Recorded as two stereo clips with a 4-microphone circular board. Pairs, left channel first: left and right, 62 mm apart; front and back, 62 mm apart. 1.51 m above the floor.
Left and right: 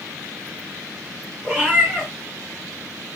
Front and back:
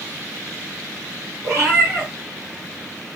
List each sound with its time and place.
1.4 s a cat meowing: 145° right, 2 m